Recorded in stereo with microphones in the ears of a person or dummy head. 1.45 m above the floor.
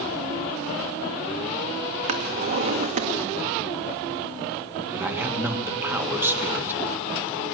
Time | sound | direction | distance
2.1 | a drawer | 40° right (ahead or behind) | 1.1 m
4.9 | a man speaking | 15° right (ahead or behind) | 2.5 m